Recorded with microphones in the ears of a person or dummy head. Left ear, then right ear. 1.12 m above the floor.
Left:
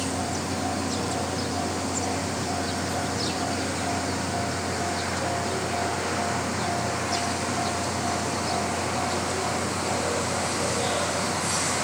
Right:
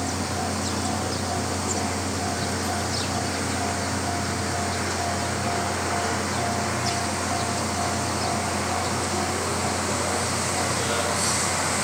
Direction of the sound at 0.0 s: 50° right (ahead or behind).